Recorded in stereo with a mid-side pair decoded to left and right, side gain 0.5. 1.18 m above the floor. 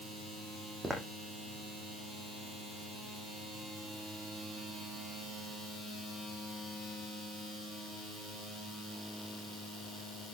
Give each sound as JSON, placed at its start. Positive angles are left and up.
{"t": 0.8, "sound": "footsteps", "azimuth_deg": -10, "distance_m": 4.0}